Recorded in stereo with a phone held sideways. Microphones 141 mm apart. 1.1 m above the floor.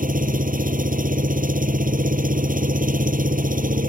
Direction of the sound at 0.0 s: 75° right (ahead or behind).